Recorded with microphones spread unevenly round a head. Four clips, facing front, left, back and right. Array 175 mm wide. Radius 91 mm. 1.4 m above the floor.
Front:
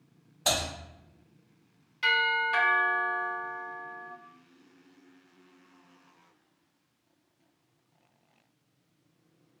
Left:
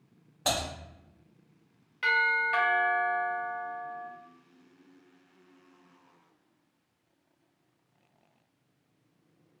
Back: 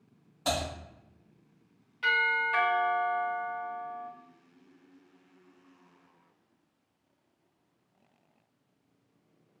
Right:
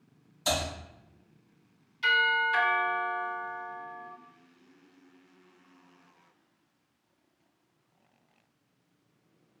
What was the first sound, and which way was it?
Typing on a keyboard, 75° left.